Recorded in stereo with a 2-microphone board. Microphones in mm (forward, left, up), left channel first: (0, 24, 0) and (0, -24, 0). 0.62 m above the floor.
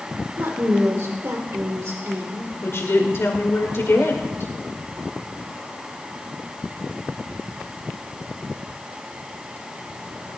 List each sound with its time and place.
0.4 s a woman speaking: 70° right (ahead or behind), 1.5 m
2.6 s a woman speaking: 65° left (ahead or behind), 2 m